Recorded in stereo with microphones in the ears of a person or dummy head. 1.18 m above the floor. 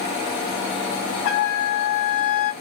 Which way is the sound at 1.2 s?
60° left (ahead or behind).